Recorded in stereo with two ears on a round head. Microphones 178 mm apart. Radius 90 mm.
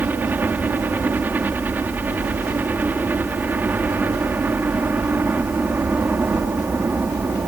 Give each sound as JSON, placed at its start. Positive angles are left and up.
{"t": 0.0, "sound": "a helicopter", "side_deg": -10}